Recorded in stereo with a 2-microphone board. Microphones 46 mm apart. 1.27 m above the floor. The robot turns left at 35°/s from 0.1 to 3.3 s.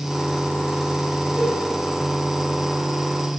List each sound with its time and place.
1.4 s a cowbell: 30° right (ahead or behind), 2.0 m; by 1.6 s 40° right (ahead or behind), 2.0 m